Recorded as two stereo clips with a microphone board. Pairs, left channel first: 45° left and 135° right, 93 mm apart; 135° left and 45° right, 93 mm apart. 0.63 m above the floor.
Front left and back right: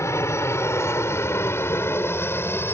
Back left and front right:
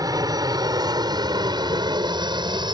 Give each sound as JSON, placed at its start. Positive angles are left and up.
{"t": 0.0, "sound": "an aircraft", "azimuth_deg": -10}